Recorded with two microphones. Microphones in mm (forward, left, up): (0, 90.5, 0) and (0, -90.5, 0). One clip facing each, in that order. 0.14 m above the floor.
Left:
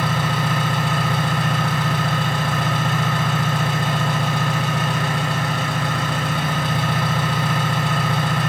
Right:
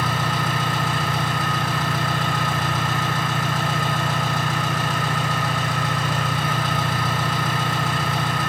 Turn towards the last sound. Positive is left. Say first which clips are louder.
# left 2 dB
turn(degrees=65)  # may be behind; listen again after turning